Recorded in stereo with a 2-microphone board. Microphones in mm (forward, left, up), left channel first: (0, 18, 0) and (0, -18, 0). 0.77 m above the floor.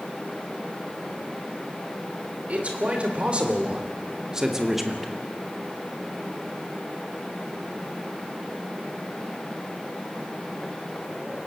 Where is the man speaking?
40° right (ahead or behind), 4 m; by 5.1 s 5° left (ahead or behind), 1.9 m.